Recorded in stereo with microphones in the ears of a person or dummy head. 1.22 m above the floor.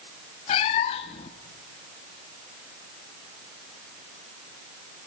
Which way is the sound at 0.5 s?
25° left (ahead or behind).